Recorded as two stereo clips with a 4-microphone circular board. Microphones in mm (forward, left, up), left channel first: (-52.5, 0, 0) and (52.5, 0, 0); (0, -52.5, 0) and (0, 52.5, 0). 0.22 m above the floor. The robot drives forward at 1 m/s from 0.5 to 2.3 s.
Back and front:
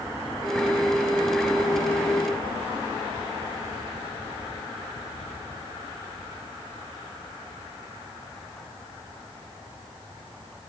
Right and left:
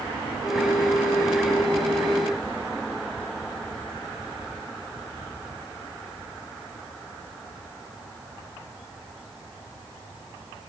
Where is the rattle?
I don't hear a rattle.